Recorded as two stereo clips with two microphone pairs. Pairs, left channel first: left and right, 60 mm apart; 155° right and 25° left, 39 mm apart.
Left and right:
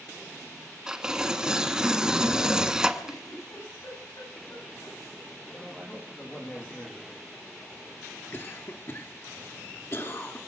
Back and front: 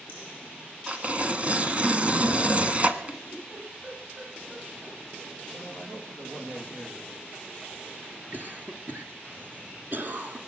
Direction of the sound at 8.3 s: 50° left.